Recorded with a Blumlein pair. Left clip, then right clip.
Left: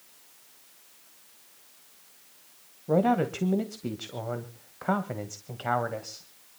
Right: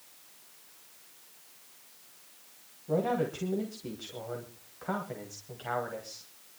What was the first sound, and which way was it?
A man speaking, 65° left.